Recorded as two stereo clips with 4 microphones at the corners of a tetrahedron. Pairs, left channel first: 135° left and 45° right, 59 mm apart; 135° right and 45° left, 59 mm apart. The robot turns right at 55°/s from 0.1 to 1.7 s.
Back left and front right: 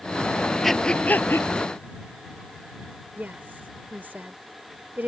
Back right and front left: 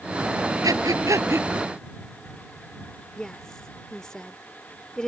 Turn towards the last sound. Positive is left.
turn(degrees=-60)